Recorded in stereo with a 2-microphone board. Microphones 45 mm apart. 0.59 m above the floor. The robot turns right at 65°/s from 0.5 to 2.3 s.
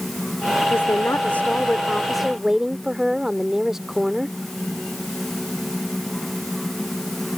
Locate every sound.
0.7 s a woman speaking: 90° left; by 4.4 s 165° right